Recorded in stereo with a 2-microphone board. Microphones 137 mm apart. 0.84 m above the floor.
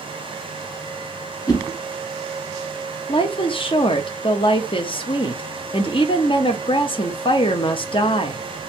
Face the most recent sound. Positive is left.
turn(degrees=40)  # may be behind; listen again after turning